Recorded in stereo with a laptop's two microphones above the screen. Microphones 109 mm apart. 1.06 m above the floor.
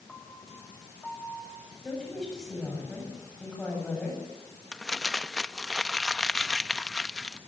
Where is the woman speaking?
5° left (ahead or behind), 8 m.